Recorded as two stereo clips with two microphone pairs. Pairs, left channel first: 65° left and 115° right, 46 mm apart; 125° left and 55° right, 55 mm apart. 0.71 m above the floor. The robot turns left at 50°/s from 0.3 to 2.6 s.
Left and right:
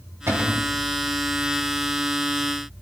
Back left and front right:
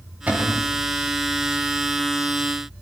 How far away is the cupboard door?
About 3.5 m.